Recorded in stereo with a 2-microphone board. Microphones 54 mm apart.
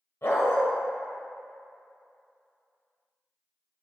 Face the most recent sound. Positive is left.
turn(degrees=60)  # may be behind; listen again after turning